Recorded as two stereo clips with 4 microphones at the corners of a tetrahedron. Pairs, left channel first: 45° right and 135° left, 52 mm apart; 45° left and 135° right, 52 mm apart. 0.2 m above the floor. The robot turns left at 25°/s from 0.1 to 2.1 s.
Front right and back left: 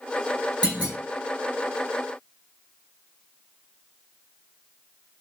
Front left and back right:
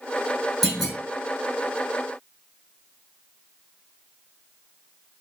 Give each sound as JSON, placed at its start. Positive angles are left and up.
{"t": 0.6, "sound": "a clunk", "azimuth_deg": 130, "distance_m": 1.6}